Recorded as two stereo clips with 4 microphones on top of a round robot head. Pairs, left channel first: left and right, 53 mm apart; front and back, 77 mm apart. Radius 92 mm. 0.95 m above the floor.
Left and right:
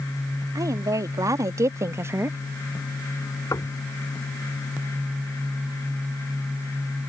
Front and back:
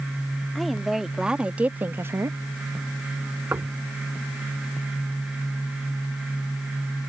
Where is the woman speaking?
90° right; by 2.4 s 135° right.